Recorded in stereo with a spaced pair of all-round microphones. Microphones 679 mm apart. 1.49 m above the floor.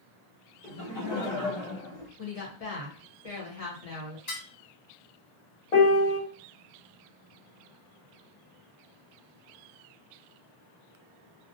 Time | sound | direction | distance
0.6 | laughter | 10° left (ahead or behind) | 0.8 m
2.2 | a woman speaking | 60° left (ahead or behind) | 1.0 m
4.3 | dishes clattering | 70° left (ahead or behind) | 1.6 m
5.7 | a piano | 70° left (ahead or behind) | 0.8 m